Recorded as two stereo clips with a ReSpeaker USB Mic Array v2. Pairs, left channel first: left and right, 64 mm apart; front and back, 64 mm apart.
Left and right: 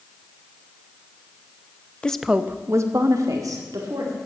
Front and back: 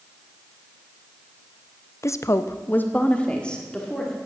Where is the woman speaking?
20° left, 0.5 m; by 4.2 s 80° right, 2 m.